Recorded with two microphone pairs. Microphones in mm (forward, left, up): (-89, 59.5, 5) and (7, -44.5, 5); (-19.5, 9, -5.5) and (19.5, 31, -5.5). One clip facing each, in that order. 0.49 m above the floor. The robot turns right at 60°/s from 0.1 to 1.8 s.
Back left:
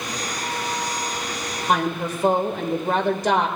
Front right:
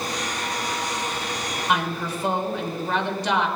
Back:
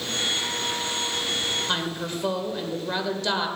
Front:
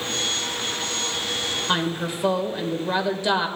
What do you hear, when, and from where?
1.7 s a woman speaking: 95° left, 2 m; by 3.5 s 105° left, 2 m